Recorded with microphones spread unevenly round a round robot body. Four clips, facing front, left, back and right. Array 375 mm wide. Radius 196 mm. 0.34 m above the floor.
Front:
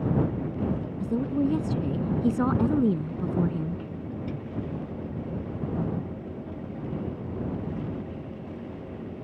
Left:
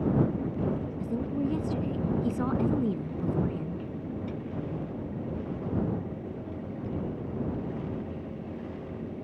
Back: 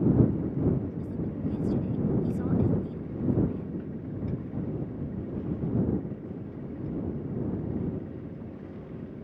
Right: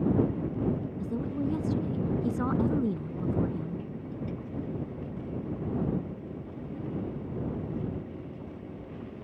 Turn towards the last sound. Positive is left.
turn(degrees=5)